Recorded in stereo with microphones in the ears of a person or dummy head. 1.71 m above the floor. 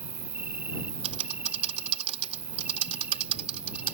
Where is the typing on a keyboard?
40° right (ahead or behind).